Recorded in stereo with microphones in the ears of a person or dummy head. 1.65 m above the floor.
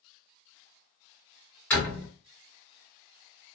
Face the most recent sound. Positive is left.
turn(degrees=10)  # may be behind; listen again after turning